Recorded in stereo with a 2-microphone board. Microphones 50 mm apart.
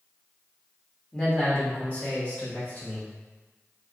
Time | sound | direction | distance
1.1 | a man speaking | 15° left (ahead or behind) | 0.9 m